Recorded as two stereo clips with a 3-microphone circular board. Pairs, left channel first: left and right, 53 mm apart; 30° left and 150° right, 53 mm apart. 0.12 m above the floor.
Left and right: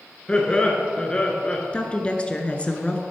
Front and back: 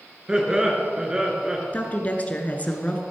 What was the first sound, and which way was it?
Laughter, 145° left.